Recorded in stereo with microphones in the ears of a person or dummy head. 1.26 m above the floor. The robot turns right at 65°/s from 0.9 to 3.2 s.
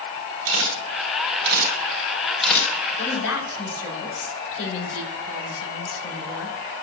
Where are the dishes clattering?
I don't hear dishes clattering.